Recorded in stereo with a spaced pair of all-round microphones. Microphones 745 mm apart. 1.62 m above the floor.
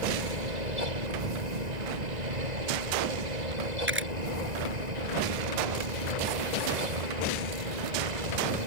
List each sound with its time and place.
0.0 s a fan: 65° right (ahead or behind)
3.9 s a camera shutter: 15° right (ahead or behind)